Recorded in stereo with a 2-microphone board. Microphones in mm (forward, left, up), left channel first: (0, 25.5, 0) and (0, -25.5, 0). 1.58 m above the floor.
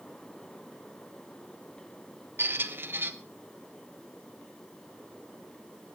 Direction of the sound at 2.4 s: 45° right (ahead or behind).